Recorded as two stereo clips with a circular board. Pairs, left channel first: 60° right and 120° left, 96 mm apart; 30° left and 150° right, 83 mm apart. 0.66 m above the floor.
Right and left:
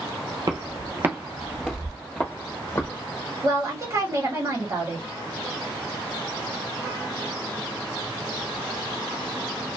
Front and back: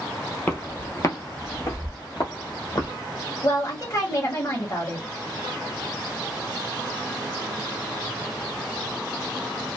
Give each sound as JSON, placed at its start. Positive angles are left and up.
{"t": 0.5, "sound": "footsteps", "azimuth_deg": 90, "distance_m": 0.9}
{"t": 3.4, "sound": "a woman speaking", "azimuth_deg": 70, "distance_m": 1.3}